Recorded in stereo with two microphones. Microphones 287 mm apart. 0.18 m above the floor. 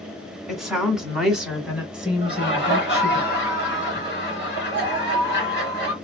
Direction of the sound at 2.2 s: 40° left (ahead or behind).